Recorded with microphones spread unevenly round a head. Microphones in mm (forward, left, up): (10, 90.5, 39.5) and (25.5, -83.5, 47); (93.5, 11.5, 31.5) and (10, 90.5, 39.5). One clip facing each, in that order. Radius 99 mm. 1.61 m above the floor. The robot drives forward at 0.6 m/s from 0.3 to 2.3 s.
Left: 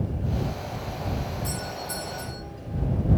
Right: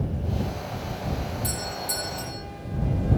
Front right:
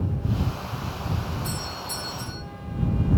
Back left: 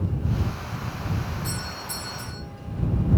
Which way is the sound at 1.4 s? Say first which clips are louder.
Right 1 dB, front right 1 dB; 130° right.